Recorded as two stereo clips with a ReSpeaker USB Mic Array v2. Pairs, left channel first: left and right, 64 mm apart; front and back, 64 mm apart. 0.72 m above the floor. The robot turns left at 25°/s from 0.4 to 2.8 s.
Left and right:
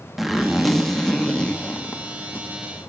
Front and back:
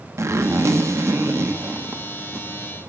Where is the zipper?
175° right, 0.7 m; by 2.5 s 130° left, 0.7 m.